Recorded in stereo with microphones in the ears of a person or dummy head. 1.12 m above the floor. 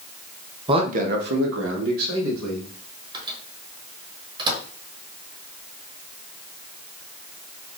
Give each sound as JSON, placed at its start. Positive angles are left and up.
{"t": 0.7, "sound": "a man speaking", "side_deg": -25, "distance_m": 0.7}
{"t": 3.1, "sound": "a microwave", "side_deg": -25, "distance_m": 1.2}